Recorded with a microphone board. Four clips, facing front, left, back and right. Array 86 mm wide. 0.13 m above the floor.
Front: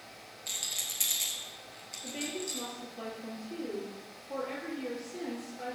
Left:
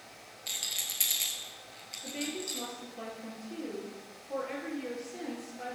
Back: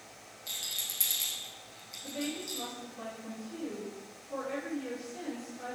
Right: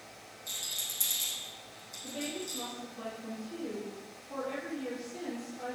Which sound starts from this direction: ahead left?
A woman speaking, at 2.0 s.